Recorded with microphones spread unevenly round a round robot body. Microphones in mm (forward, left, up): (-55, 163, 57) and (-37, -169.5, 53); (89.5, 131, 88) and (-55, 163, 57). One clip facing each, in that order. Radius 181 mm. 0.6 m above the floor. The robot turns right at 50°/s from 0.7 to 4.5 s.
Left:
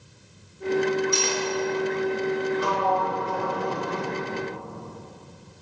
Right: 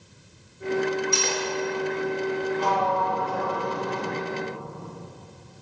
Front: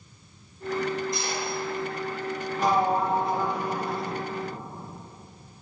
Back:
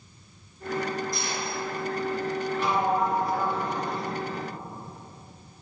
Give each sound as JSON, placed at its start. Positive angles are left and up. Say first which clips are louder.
{"t": 1.1, "sound": "cutlery clinking", "louder": "left 1 dB, front 2 dB", "azimuth_deg": -90, "distance_m": 1.2}
{"t": 2.6, "sound": "a sliding door", "louder": "even, front 3 dB", "azimuth_deg": 25, "distance_m": 0.9}